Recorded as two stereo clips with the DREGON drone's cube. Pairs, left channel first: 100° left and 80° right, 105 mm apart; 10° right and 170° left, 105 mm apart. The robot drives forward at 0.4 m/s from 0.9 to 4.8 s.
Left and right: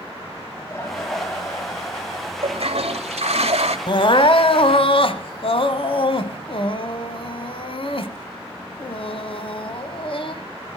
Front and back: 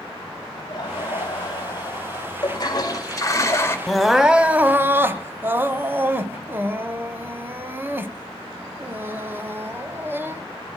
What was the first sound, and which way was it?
Laughter, 40° left.